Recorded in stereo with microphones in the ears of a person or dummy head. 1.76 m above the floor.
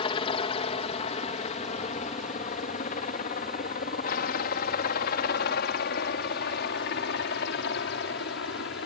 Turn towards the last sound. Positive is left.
turn(degrees=65)  # may be behind; listen again after turning